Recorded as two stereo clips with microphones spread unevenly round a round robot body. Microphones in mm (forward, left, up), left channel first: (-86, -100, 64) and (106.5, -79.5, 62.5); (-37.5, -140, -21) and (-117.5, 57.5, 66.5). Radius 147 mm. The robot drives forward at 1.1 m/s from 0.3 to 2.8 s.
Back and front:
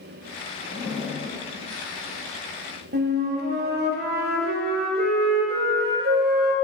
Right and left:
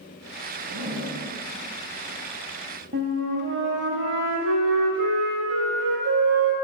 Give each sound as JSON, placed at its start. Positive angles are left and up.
{"t": 0.6, "sound": "a zipper", "azimuth_deg": 85, "distance_m": 1.6}
{"t": 2.9, "sound": "a flute", "azimuth_deg": 50, "distance_m": 0.6}